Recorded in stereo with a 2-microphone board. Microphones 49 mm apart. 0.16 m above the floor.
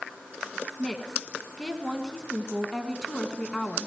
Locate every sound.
0.8 s a woman speaking: 10° left (ahead or behind), 1.5 m